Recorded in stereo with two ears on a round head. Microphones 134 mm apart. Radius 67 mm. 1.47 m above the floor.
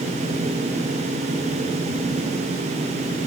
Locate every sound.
Only background noise.